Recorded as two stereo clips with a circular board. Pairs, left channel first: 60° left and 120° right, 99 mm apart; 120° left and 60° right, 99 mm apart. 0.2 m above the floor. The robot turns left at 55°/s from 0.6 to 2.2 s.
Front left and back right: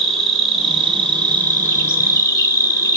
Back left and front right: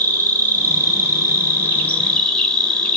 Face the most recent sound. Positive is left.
turn(degrees=55)